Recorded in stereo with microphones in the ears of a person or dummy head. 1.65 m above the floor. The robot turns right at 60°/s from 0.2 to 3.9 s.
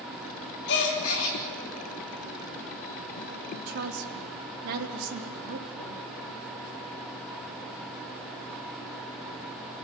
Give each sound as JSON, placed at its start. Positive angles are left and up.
{"t": 0.7, "sound": "a gasp", "azimuth_deg": 60, "distance_m": 3.0}
{"t": 3.5, "sound": "a woman speaking", "side_deg": -35, "distance_m": 3.0}